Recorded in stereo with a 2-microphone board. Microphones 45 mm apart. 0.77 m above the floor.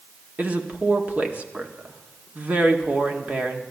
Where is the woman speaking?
35° right (ahead or behind), 1.8 m.